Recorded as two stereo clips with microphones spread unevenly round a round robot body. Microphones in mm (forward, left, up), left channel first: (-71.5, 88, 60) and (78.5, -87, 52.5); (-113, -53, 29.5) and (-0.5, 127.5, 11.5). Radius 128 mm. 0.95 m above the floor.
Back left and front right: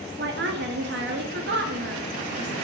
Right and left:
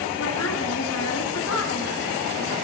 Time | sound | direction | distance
0.2 | a woman speaking | 90° right | 2 m